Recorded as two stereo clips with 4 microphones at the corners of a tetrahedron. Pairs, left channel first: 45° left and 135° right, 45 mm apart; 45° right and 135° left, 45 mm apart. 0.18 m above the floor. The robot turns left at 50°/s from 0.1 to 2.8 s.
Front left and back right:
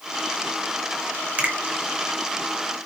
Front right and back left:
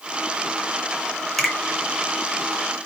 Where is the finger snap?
135° right, 1.6 m; by 1.5 s 140° right, 1.6 m.